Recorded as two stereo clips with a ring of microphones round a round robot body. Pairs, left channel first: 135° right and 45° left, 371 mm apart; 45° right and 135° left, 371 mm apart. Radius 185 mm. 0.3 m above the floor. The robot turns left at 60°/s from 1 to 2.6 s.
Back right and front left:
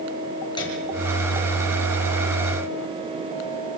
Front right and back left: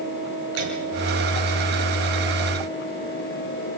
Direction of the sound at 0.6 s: 145° left.